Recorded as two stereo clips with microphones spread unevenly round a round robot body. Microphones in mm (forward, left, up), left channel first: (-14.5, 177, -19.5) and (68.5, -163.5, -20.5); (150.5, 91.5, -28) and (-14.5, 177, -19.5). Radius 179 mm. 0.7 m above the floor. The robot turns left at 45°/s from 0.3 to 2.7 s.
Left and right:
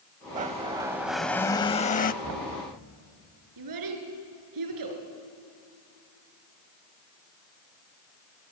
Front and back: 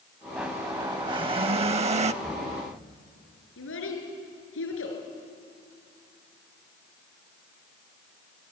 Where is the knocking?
120° right, 3.5 m; by 2.6 s 135° right, 3.5 m.